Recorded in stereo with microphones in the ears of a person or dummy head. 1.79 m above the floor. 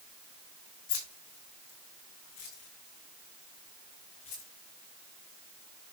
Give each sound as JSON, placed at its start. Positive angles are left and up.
{"t": 0.9, "sound": "keys jangling", "side_deg": 65, "distance_m": 4.0}